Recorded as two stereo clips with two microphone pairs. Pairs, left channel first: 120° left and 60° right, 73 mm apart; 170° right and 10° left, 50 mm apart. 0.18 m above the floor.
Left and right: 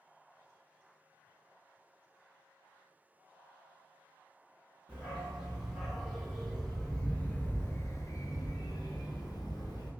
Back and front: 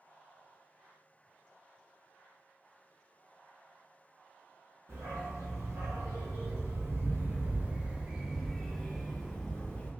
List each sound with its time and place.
4.9 s a dog barking: 15° left, 1.8 m; by 9.9 s 125° left, 1.4 m